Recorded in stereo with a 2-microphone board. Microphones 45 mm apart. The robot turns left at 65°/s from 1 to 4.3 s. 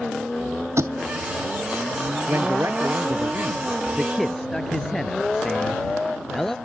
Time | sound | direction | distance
0.8 | a thud | 85° right | ?
2.3 | a man speaking | 60° right | ?